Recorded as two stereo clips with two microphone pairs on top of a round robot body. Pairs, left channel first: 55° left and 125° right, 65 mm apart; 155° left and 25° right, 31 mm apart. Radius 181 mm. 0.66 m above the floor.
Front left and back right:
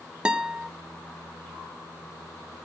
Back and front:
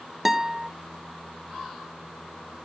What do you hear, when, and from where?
0.2 s a guitar: 90° right, 1.0 m